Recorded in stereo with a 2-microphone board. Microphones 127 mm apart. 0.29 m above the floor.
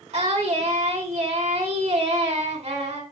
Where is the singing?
55° right (ahead or behind), 2.5 m.